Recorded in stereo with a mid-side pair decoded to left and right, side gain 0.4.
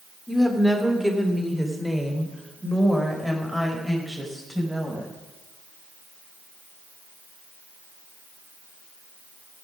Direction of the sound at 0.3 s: 5° right.